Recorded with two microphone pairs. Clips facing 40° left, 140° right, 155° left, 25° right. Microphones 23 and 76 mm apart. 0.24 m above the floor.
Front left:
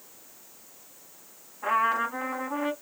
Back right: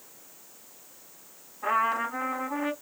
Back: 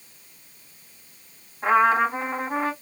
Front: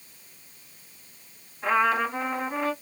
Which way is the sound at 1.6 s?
120° left.